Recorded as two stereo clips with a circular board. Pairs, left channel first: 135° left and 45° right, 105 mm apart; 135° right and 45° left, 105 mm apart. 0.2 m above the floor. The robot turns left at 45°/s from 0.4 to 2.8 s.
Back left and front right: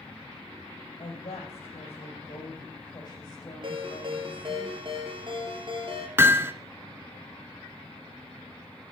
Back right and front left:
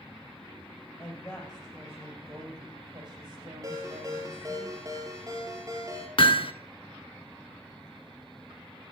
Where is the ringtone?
10° right, 2 m.